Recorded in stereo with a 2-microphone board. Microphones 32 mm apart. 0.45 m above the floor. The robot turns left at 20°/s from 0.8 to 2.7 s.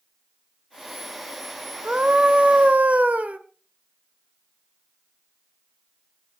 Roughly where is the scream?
Right.